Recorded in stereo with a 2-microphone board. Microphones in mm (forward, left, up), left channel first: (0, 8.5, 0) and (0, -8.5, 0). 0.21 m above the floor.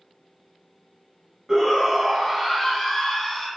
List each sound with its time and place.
1.5 s a shout: 15° right (ahead or behind), 1.3 m; by 3.5 s 15° left (ahead or behind), 1.3 m